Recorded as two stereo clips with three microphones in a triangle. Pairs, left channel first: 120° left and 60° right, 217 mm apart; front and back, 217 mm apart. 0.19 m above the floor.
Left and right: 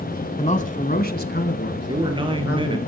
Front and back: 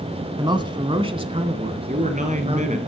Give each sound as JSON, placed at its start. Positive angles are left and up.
{"t": 0.4, "sound": "a man speaking", "azimuth_deg": 130, "distance_m": 1.4}
{"t": 1.9, "sound": "a man speaking", "azimuth_deg": -125, "distance_m": 3.0}